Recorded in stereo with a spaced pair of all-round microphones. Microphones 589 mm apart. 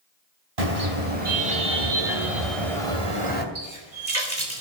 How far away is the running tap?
About 3.5 m.